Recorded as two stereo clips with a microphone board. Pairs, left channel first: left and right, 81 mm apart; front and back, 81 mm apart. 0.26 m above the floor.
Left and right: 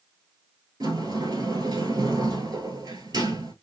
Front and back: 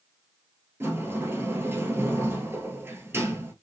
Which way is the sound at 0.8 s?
120° right.